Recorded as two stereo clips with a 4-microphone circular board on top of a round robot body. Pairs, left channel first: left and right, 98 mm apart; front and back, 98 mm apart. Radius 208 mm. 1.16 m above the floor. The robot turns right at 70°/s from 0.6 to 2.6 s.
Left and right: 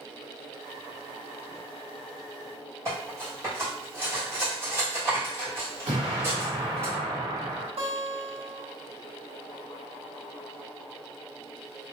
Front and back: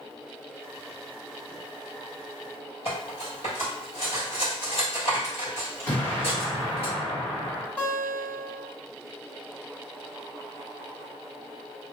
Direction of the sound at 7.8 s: 80° right.